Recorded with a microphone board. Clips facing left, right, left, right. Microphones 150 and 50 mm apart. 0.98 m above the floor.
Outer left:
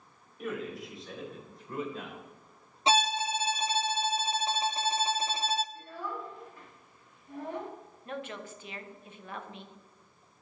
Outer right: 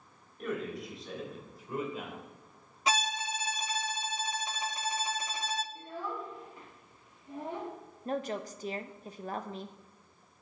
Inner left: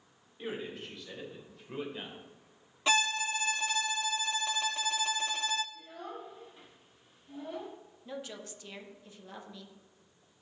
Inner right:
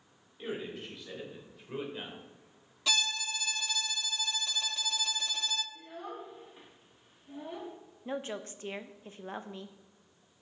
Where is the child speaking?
20° right (ahead or behind), 1.5 m.